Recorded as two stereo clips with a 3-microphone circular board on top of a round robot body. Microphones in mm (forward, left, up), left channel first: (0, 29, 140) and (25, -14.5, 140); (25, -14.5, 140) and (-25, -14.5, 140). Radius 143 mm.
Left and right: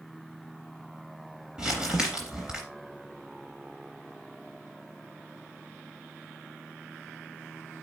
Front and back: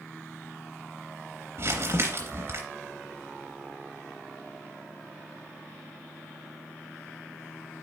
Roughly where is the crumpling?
Behind right.